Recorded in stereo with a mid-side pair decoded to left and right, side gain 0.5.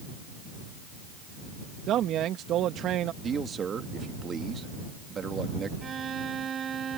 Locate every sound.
1.9 s a man speaking: 65° right
3.2 s a man speaking: 45° right
5.8 s a violin: 45° right